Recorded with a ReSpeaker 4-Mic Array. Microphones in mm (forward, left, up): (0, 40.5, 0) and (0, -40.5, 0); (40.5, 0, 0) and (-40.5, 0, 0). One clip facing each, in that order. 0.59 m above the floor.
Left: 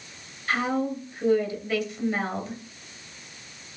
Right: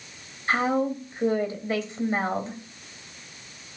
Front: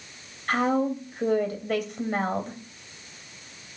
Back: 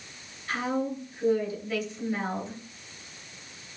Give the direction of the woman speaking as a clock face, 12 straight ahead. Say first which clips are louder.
Right 2 dB, front 5 dB; 1 o'clock.